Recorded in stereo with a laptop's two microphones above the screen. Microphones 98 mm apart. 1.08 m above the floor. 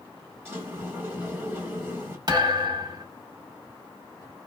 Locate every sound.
0.5 s a sliding door: 25° right (ahead or behind), 1.3 m
2.3 s a thud: 45° right (ahead or behind), 1.3 m